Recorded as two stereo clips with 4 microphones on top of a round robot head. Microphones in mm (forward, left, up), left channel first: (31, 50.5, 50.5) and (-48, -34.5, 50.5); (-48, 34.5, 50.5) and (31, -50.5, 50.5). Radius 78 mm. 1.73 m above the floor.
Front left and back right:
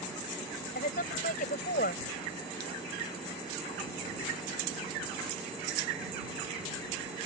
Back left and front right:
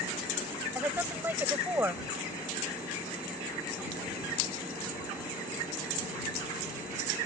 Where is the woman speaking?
30° left.